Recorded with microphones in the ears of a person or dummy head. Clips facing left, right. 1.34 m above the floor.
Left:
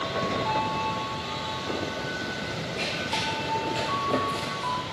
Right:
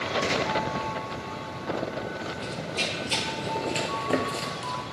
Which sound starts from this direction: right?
Running footsteps, at 2.4 s.